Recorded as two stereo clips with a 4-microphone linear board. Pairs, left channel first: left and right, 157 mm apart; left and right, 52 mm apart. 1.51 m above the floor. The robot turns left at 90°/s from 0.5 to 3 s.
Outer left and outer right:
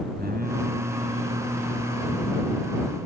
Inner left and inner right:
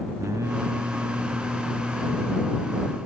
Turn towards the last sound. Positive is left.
turn(degrees=55)